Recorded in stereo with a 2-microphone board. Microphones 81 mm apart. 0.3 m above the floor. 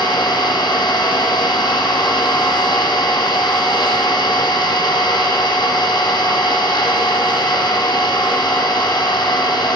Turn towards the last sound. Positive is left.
turn(degrees=85)